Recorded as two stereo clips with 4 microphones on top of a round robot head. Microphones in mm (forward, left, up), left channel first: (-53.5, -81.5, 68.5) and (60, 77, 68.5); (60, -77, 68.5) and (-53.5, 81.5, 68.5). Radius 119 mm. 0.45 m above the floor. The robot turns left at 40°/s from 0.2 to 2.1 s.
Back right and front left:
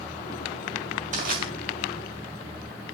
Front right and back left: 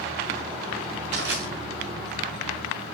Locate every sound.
1.1 s crushing: 105° left, 6 m; by 1.4 s 90° left, 6 m